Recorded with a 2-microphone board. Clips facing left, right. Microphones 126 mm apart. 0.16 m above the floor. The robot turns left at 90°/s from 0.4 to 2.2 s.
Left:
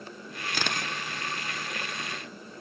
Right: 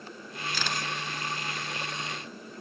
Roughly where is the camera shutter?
Left.